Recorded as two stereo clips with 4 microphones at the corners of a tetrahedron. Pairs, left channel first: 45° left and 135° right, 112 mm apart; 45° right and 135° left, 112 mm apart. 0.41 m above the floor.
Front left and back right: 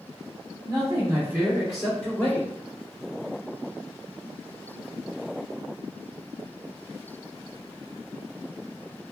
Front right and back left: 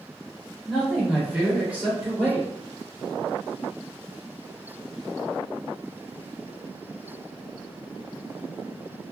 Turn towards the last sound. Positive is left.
turn(degrees=90)